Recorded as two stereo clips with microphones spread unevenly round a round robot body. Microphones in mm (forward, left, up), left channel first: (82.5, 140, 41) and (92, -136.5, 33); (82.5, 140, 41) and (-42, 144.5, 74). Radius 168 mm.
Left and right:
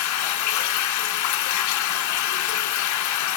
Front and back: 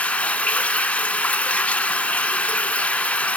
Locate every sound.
0.0 s running water: 85° left, 0.8 m